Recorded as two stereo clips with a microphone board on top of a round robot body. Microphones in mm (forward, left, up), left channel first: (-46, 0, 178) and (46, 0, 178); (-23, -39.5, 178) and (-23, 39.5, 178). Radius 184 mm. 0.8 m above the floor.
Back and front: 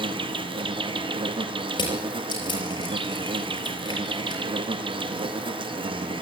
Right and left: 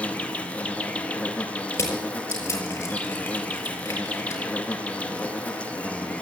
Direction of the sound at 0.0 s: 15° right.